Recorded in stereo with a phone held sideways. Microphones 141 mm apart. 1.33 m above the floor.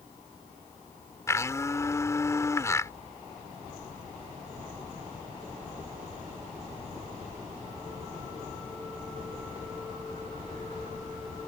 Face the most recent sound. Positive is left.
turn(degrees=20)  # may be behind; listen again after turning